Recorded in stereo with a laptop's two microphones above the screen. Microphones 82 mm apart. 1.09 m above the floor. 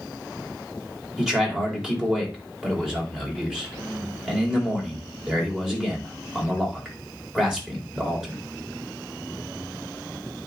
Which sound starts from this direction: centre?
A man speaking, at 1.2 s.